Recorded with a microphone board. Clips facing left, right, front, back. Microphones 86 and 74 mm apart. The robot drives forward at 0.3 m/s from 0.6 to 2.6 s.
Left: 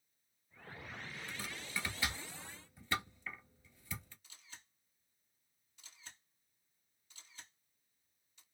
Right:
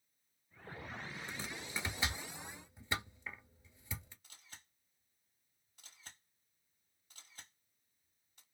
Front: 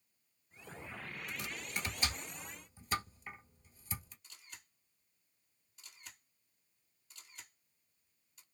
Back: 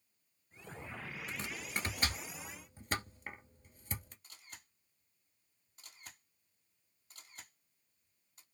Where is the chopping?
140° right, 0.9 m; by 4.1 s 155° right, 1.1 m.